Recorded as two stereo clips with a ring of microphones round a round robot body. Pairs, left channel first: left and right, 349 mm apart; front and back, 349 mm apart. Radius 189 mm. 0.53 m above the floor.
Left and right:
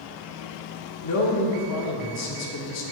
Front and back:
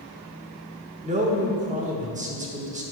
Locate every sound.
1.0 s a man speaking: 115° left, 1.0 m